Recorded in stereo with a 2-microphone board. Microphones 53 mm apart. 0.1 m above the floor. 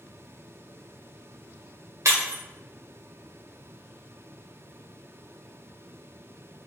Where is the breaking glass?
80° right, 1.3 m.